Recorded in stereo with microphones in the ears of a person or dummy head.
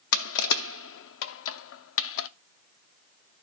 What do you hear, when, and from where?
0.1 s crushing: 75° left (ahead or behind), 0.6 m